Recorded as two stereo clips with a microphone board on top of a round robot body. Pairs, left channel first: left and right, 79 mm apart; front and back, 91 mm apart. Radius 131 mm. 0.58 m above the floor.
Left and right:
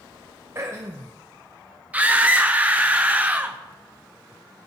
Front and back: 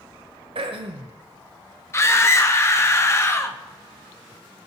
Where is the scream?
35° right, 0.8 m.